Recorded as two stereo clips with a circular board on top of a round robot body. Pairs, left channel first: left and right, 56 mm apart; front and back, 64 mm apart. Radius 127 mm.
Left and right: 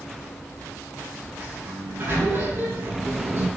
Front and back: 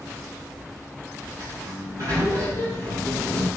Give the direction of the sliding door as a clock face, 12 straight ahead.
5 o'clock.